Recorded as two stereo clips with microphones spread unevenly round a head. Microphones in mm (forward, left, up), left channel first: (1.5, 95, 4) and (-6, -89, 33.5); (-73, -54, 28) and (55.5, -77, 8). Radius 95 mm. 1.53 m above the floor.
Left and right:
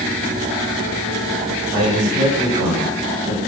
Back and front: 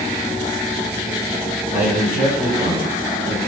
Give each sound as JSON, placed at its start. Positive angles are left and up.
{"t": 1.7, "sound": "a man speaking", "azimuth_deg": -35, "distance_m": 7.5}